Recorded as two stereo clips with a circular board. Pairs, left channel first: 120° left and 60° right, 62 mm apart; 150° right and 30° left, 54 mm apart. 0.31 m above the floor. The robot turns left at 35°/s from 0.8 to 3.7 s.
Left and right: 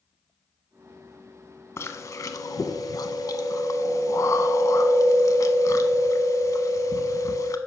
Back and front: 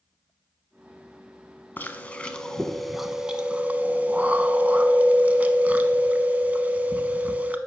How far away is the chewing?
About 0.8 m.